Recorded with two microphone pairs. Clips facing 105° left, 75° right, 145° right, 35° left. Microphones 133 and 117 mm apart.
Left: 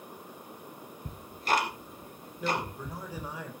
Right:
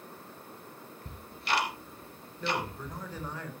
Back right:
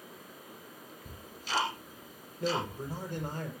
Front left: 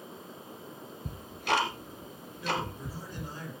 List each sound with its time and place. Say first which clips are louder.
1.1 s ticking: left 4 dB, front left 10 dB; 60° left, 2.5 m
2.4 s a man speaking: left 1 dB, back right 1 dB; 175° right, 4 m